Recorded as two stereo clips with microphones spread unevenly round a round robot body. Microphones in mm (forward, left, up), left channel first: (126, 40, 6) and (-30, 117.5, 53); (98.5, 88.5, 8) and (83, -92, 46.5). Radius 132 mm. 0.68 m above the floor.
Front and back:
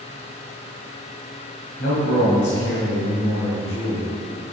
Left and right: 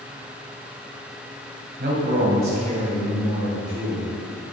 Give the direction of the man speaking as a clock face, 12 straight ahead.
2 o'clock.